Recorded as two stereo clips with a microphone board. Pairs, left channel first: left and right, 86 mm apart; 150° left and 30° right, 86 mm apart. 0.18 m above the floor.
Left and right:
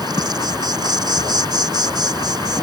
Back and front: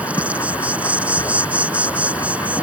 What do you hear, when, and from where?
0.0 s an insect: 100° right